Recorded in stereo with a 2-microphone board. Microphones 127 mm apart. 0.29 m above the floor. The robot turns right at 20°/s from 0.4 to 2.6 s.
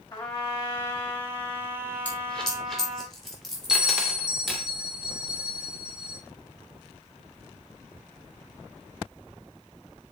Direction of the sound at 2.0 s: 10° left (ahead or behind).